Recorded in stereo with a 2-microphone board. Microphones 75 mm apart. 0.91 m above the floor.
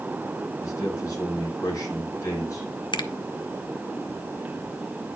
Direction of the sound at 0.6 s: 45° left (ahead or behind).